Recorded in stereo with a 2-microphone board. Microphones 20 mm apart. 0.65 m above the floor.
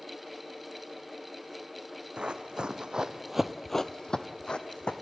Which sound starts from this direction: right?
Running footsteps, at 2.2 s.